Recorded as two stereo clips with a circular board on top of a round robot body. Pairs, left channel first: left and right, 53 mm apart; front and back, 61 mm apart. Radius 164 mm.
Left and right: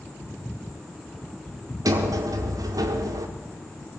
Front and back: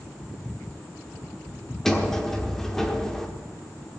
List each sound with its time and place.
1.9 s a sliding door: 85° right, 1.0 m